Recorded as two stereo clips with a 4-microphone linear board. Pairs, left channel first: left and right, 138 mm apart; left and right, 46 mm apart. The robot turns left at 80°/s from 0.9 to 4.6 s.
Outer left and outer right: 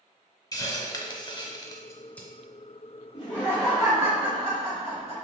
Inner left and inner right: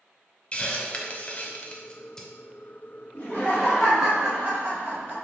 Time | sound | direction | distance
0.5 | a hiss | 25° left (ahead or behind) | 0.6 m
3.1 | laughter | 50° left | 1.8 m